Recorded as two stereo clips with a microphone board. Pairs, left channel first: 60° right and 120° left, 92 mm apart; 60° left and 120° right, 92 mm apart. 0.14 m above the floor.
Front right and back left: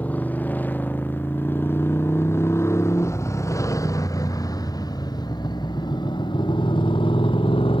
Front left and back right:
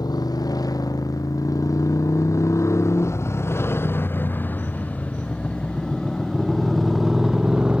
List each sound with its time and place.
0.0 s a motorcycle: 15° left; by 7.8 s 40° right